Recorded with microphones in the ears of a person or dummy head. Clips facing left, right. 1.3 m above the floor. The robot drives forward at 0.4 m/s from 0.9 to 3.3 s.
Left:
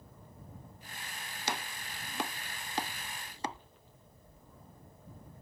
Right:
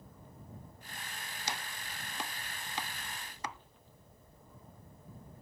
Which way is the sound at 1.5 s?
50° left (ahead or behind).